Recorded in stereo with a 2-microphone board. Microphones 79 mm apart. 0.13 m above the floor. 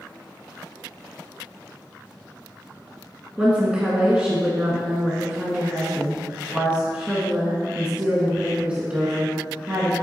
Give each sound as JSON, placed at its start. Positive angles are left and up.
{"t": 3.4, "sound": "a woman speaking", "side_deg": -15, "distance_m": 1.6}